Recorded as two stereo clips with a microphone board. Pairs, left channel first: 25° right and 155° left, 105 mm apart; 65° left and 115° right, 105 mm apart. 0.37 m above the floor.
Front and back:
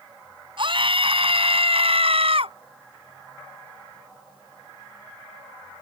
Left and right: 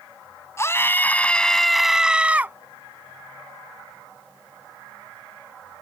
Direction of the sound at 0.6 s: 125° left.